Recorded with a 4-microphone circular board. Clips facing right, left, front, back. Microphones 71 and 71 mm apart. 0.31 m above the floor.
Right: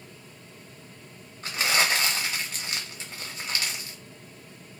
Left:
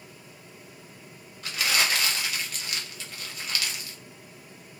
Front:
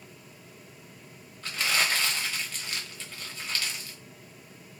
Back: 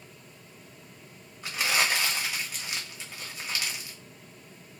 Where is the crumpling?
120° right, 0.9 m.